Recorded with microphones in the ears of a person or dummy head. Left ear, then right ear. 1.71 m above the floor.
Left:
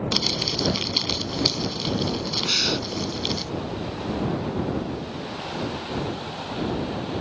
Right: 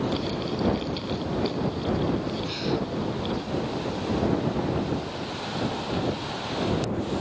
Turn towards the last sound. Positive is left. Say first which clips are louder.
# left 9 dB
turn(degrees=50)  # may be behind; listen again after turning